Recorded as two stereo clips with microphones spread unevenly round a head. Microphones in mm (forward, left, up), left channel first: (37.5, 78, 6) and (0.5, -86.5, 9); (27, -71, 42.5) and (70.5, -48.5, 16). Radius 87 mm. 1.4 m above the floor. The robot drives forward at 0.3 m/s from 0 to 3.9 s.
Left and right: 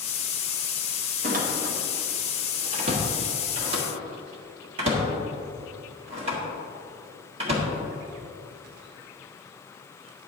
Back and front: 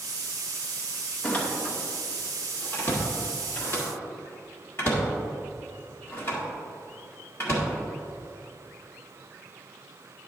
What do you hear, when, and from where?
1.2 s a door slam: 140° right, 1.0 m; by 7.7 s 160° right, 1.6 m